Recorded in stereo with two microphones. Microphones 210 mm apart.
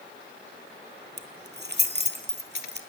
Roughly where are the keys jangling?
Right.